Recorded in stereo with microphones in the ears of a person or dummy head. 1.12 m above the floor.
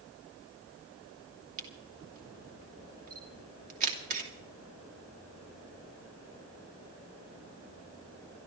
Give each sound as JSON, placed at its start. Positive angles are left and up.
{"t": 1.6, "sound": "a camera shutter", "side_deg": -45, "distance_m": 2.5}